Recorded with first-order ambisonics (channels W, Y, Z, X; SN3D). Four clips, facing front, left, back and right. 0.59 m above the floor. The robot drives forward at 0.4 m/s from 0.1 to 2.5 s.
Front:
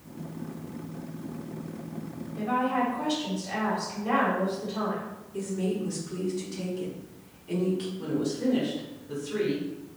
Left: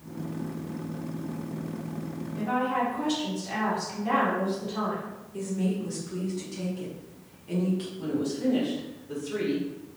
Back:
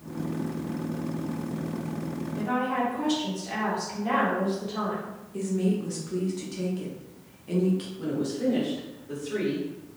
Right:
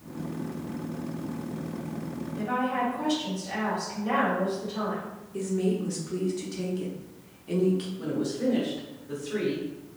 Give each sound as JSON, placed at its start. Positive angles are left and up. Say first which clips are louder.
{"t": 2.4, "sound": "a woman speaking", "louder": "left 1 dB, front 1 dB", "azimuth_deg": 150, "distance_m": 1.3}
{"t": 5.3, "sound": "a woman speaking", "louder": "right 2 dB, back 3 dB", "azimuth_deg": -135, "distance_m": 0.6}
{"t": 8.0, "sound": "a woman speaking", "louder": "even, even", "azimuth_deg": -130, "distance_m": 1.8}